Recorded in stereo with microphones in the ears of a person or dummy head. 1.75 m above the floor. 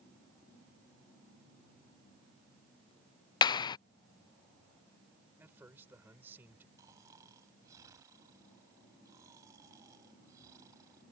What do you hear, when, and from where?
3.4 s a clap: 30° left (ahead or behind)
5.4 s a man speaking: 15° right (ahead or behind)
6.8 s snoring: 20° right (ahead or behind)